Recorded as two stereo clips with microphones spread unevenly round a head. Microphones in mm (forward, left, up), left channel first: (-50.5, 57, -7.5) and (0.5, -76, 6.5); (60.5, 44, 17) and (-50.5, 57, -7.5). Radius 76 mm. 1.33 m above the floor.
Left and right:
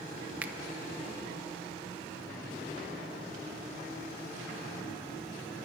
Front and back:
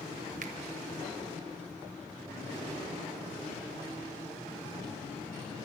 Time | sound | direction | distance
0.4 | a finger snap | 145° right | 0.7 m